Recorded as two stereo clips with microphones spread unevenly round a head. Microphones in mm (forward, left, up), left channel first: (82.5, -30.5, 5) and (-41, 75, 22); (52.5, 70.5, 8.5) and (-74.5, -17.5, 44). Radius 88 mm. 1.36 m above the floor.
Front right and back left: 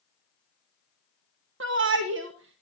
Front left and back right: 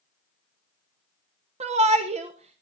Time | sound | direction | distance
1.6 | a shout | 165° left | 1.1 m